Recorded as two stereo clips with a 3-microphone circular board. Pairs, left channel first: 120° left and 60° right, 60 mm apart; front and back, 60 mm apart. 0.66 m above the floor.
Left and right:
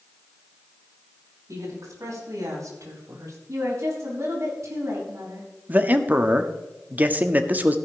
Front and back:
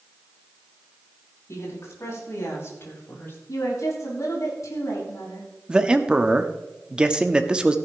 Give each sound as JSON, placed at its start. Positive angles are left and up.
{"t": 1.5, "sound": "a woman speaking", "azimuth_deg": -35, "distance_m": 5.5}
{"t": 3.5, "sound": "a woman speaking", "azimuth_deg": -25, "distance_m": 4.5}
{"t": 5.7, "sound": "a man speaking", "azimuth_deg": -110, "distance_m": 0.9}